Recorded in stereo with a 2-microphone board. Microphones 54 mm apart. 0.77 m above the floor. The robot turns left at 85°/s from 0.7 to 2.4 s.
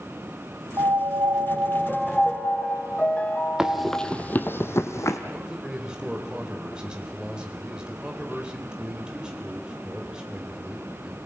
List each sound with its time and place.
0.8 s a piano: 70° right, 0.9 m; by 4.1 s 150° left, 0.9 m
3.6 s running footsteps: 15° right (ahead or behind), 1.3 m; by 5.2 s 60° left (ahead or behind), 1.9 m
5.3 s a man speaking: 20° right (ahead or behind), 3.5 m